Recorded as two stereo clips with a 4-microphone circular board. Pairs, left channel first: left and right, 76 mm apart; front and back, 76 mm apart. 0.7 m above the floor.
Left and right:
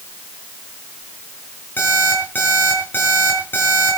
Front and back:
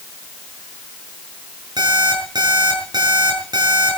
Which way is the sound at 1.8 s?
155° left.